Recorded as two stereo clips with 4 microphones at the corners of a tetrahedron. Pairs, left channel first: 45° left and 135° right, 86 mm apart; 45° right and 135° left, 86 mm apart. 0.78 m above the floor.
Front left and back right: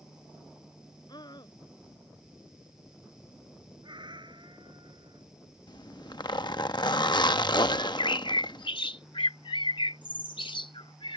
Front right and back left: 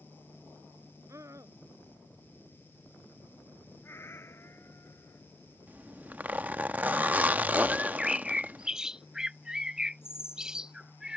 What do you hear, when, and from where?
1.1 s a scream: 80° left
3.8 s a cat meowing: 105° right
5.7 s a zipper: 70° left
7.7 s a bird: 55° left